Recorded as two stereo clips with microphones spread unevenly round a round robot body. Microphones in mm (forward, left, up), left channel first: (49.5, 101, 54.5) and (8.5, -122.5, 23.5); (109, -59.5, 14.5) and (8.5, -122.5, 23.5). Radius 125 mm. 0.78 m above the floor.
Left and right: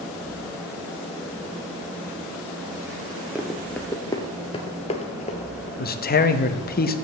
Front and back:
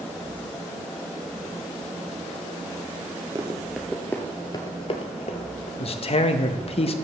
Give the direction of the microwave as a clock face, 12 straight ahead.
No microwave in this recording.